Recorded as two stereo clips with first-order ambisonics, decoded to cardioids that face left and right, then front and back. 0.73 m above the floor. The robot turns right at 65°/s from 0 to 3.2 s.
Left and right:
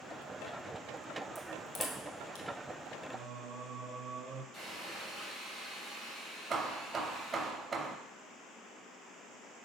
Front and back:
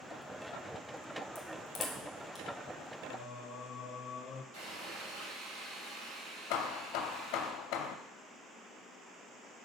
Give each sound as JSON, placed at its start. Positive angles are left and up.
{"t": 1.4, "sound": "a crack", "azimuth_deg": 10, "distance_m": 1.1}
{"t": 3.1, "sound": "singing", "azimuth_deg": -50, "distance_m": 0.9}
{"t": 4.5, "sound": "sawing", "azimuth_deg": 180, "distance_m": 3.0}
{"t": 6.5, "sound": "hammering", "azimuth_deg": -20, "distance_m": 0.7}